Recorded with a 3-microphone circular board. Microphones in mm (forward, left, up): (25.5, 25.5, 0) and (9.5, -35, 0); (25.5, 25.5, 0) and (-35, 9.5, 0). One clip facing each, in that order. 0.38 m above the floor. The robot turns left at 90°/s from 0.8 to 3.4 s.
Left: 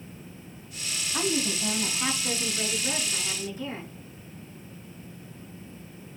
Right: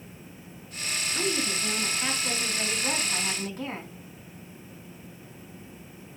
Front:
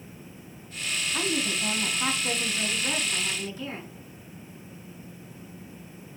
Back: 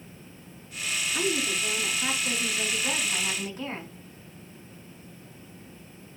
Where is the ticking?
I don't hear ticking.